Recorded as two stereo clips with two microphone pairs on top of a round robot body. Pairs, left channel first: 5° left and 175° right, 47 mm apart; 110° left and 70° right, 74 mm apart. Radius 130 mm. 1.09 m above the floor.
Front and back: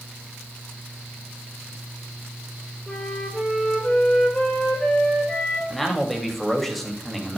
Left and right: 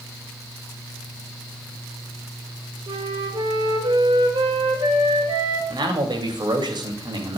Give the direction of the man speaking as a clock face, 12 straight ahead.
3 o'clock.